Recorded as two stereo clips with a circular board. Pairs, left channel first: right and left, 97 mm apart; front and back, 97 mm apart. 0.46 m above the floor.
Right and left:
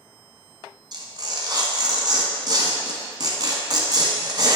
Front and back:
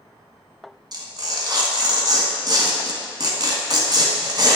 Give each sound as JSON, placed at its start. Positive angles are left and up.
{"t": 0.9, "sound": "tearing paper", "azimuth_deg": 135, "distance_m": 1.3}